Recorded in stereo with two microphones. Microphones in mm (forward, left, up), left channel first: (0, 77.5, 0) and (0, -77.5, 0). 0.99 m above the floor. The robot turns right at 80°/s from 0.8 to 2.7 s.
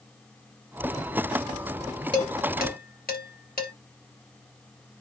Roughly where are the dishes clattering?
Left.